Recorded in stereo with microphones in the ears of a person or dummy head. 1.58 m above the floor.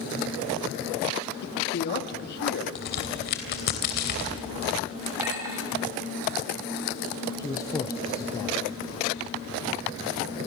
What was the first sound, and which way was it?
A man speaking, 60° left (ahead or behind).